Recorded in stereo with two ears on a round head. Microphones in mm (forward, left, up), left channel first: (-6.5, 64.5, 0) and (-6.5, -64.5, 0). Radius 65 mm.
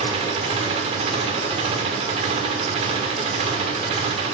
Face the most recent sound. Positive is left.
turn(degrees=-45)  # may be behind; listen again after turning